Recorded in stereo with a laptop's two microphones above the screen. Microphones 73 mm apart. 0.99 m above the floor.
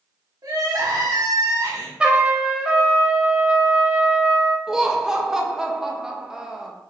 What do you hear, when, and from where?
0.4 s crying: 55° right (ahead or behind), 0.8 m
2.0 s a trumpet: 15° right (ahead or behind), 0.6 m
4.7 s laughter: 5° right (ahead or behind), 0.6 m